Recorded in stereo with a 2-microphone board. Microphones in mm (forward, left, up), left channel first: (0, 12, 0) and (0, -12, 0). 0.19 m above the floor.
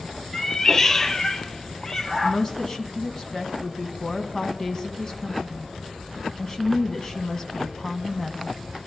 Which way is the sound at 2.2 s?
25° left (ahead or behind).